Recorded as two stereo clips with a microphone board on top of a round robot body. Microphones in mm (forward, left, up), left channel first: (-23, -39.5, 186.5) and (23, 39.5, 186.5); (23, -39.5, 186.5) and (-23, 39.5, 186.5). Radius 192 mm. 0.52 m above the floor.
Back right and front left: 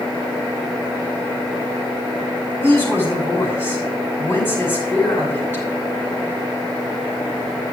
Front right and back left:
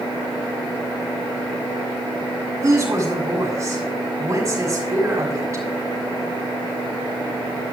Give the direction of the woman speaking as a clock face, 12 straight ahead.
6 o'clock.